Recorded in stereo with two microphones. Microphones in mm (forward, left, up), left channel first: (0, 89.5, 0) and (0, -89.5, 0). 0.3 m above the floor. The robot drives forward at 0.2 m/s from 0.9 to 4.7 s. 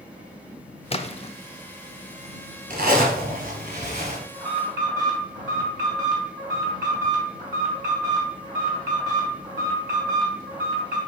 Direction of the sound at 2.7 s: 55° right (ahead or behind).